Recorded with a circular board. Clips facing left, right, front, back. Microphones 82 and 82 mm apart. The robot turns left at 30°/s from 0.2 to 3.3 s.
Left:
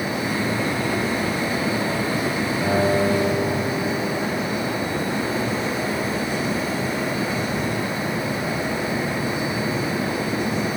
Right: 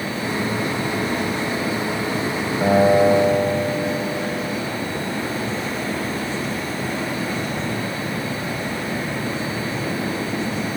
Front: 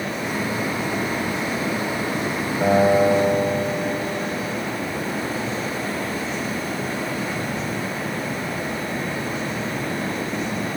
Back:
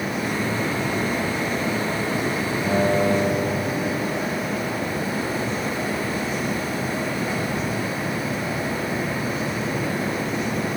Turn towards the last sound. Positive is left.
turn(degrees=-55)